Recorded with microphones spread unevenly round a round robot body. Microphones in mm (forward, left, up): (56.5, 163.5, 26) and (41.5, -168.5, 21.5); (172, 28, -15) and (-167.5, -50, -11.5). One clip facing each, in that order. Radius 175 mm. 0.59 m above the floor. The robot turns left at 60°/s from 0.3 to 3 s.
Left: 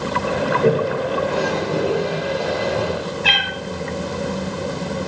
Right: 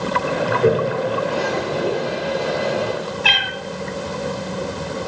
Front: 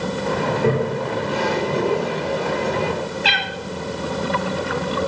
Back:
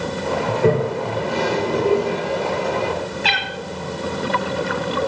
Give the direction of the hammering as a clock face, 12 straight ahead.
I don't hear hammering.